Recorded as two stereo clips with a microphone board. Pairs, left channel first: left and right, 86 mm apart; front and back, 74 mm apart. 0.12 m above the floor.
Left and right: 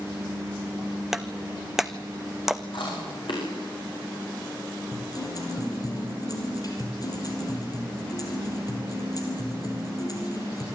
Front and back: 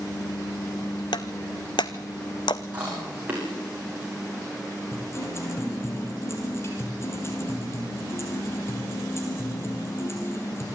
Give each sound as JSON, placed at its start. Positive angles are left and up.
{"t": 1.1, "sound": "breaking glass", "azimuth_deg": -5, "distance_m": 0.8}
{"t": 2.7, "sound": "chewing", "azimuth_deg": 110, "distance_m": 7.5}
{"t": 4.9, "sound": "a guitar", "azimuth_deg": 50, "distance_m": 4.0}